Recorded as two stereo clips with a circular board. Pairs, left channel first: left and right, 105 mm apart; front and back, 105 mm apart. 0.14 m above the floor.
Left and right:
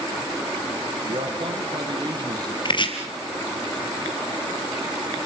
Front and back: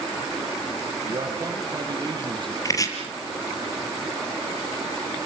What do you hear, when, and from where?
1.1 s a man speaking: 120° right, 5 m; by 2.5 s 145° right, 3.5 m
2.6 s chopping: 55° left, 4 m